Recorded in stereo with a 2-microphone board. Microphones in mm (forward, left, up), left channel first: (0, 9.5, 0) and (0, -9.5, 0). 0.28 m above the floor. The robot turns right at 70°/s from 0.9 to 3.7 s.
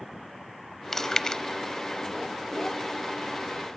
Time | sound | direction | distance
0.9 | chewing | 20° left (ahead or behind) | 0.6 m